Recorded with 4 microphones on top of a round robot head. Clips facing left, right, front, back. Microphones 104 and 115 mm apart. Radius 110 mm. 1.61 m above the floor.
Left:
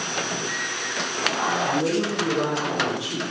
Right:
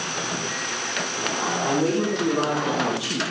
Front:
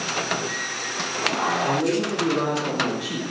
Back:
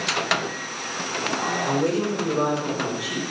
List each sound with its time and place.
1.6 s a woman speaking: 50° right, 4 m; by 3.2 s 60° right, 2 m